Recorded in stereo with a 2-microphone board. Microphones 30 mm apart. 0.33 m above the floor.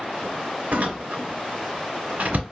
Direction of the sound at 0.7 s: 75° right (ahead or behind).